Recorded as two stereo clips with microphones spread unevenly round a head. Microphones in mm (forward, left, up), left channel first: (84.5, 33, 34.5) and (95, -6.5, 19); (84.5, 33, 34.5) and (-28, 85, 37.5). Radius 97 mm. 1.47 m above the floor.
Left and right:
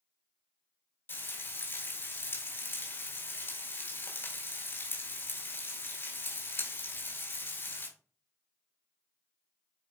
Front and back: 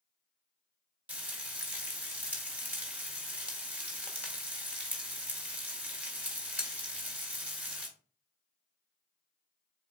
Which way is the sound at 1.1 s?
75° left.